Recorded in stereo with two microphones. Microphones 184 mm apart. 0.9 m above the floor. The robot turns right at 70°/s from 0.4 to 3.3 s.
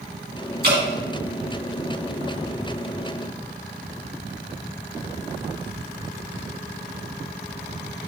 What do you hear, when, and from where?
0.6 s dripping: 60° right (ahead or behind), 2.0 m; by 0.8 s 65° right (ahead or behind), 2.0 m